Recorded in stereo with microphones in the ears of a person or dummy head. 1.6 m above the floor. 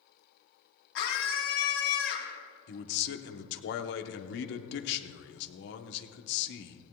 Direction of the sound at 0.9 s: 85° left.